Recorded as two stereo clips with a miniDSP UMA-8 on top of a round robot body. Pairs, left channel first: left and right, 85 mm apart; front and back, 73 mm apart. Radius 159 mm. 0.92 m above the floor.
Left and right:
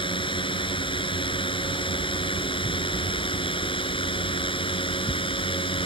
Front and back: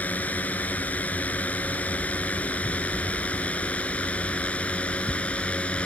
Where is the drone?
70° left; by 5.9 s 75° left.